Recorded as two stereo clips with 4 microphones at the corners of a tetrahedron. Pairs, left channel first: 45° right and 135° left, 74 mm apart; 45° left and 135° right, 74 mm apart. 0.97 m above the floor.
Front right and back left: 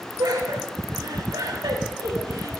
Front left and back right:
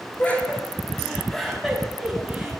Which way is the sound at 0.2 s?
115° left.